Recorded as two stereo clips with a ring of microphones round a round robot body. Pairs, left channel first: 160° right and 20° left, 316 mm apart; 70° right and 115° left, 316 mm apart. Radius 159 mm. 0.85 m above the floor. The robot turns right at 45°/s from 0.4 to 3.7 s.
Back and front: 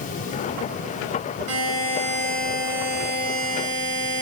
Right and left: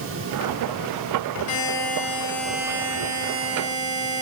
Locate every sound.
1.5 s a buzzer: 20° right, 4.5 m; by 4.2 s 80° left, 4.5 m